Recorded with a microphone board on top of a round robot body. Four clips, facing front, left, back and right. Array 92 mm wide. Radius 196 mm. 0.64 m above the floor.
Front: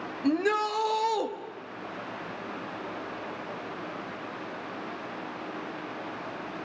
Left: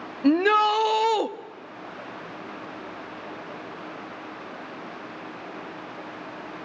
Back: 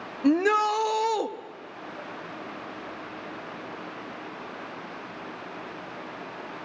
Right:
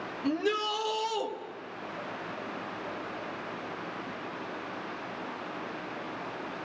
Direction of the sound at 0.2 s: 110° left.